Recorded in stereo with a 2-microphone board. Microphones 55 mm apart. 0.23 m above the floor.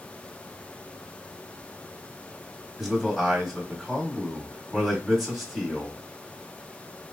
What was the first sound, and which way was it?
A man speaking, centre (ahead or behind).